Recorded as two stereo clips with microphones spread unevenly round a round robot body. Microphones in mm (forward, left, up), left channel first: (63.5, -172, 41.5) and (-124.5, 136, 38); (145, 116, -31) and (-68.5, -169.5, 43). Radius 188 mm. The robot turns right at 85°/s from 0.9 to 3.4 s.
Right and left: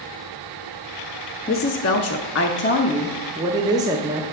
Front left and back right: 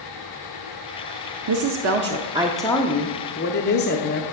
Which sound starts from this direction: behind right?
A woman speaking, at 1.5 s.